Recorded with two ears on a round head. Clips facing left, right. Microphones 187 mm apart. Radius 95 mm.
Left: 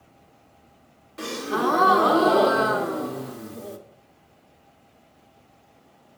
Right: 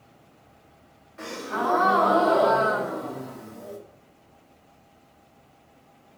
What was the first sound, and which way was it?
A gasp, 45° left (ahead or behind).